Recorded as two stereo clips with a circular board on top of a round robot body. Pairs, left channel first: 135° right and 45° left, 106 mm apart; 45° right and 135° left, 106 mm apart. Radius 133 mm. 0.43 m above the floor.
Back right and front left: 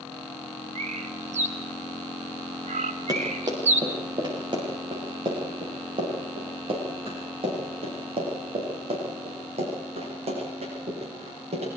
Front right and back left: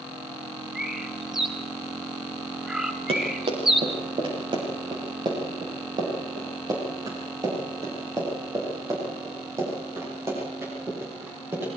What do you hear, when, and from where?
0.8 s a bird: 50° left, 2.5 m
3.1 s running footsteps: 100° left, 8 m; by 11.7 s 65° left, 15.5 m